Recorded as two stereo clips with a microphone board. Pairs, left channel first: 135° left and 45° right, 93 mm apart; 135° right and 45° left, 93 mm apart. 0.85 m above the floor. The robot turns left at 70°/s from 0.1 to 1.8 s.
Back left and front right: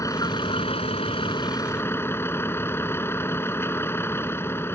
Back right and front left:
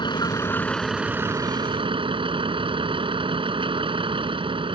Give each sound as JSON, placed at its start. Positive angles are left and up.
{"t": 0.0, "sound": "a vehicle", "azimuth_deg": -170}